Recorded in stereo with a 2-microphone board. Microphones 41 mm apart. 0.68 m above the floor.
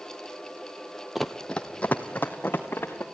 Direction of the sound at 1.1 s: Centre (ahead or behind).